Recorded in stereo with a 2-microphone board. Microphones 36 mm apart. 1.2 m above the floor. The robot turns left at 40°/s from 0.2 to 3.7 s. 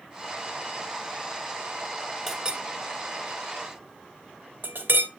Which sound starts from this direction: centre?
A clink, at 2.3 s.